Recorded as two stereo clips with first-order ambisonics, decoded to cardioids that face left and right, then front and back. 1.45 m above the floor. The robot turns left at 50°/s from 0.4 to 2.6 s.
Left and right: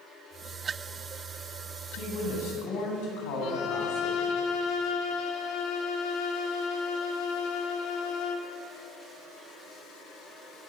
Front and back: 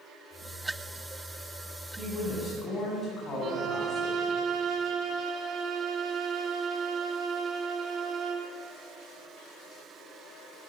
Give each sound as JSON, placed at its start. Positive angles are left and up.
{"t": 2.0, "sound": "a woman speaking", "azimuth_deg": 100, "distance_m": 9.0}
{"t": 3.4, "sound": "a violin", "azimuth_deg": 125, "distance_m": 2.5}